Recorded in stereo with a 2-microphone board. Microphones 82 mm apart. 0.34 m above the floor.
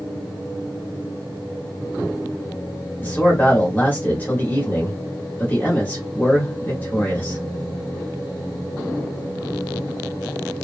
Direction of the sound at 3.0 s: 20° left (ahead or behind).